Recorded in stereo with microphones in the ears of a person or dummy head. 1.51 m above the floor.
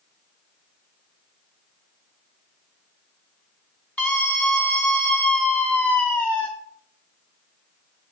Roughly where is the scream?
Centre.